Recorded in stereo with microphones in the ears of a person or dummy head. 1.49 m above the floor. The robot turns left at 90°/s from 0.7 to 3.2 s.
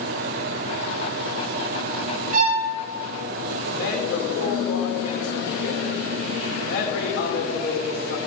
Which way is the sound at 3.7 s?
65° left (ahead or behind).